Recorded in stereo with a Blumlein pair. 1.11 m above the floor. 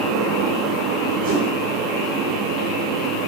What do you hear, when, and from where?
0.0 s a fan: 30° right, 0.8 m
1.2 s a whoosh: 50° right, 2.5 m